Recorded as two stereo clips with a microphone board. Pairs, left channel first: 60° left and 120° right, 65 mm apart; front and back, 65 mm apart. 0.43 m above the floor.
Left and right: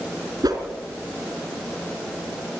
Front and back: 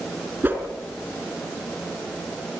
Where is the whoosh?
120° right, 4 m.